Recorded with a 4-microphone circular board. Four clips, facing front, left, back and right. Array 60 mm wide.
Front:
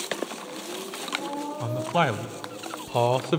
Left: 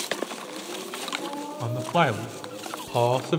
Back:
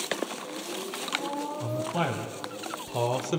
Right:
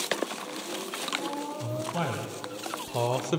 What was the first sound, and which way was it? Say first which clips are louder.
A man speaking: left 11 dB, front 7 dB; 60° left.